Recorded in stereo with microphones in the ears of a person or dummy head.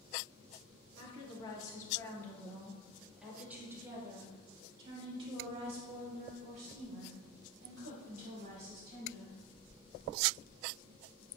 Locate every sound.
1.0 s a woman speaking: 35° left (ahead or behind), 3 m; by 9.4 s 60° right (ahead or behind), 6 m